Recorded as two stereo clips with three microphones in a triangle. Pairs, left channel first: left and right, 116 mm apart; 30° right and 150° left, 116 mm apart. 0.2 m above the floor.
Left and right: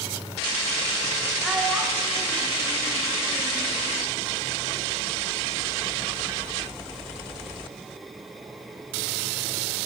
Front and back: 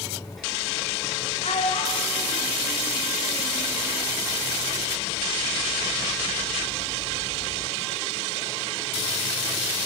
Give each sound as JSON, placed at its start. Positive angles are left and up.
{"t": 1.4, "sound": "a child speaking", "azimuth_deg": 0, "distance_m": 6.0}